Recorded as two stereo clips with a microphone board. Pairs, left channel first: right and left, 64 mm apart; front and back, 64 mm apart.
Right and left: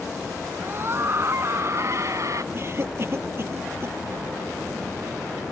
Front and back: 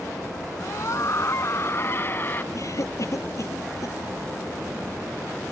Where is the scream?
35° left; by 2.4 s 60° left.